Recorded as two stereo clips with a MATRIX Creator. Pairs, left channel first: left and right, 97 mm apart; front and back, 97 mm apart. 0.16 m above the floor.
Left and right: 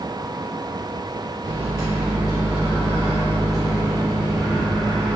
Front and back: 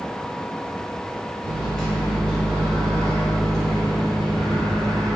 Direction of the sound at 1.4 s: 80° left.